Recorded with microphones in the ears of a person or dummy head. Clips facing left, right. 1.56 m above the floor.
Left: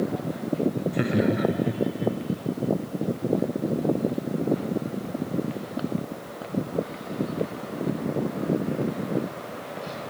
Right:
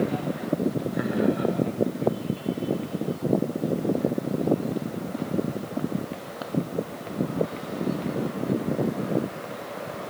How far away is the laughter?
About 0.6 m.